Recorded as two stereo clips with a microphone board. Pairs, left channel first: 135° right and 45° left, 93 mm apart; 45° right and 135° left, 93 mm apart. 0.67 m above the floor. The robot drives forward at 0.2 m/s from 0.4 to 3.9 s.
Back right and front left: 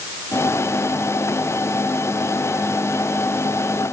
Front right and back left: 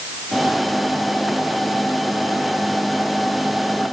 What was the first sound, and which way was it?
Only background noise.